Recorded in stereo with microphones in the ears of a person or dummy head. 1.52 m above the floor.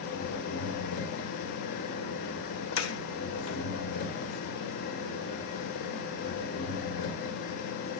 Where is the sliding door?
70° left (ahead or behind), 1.1 m.